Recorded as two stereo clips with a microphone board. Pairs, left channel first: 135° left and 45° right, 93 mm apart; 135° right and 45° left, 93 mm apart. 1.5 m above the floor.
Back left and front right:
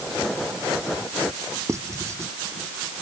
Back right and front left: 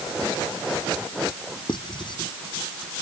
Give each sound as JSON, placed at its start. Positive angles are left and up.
{"t": 1.7, "sound": "writing", "azimuth_deg": -105}